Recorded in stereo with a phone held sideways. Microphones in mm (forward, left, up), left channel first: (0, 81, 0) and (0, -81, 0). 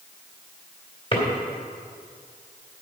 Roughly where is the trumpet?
No trumpet in this recording.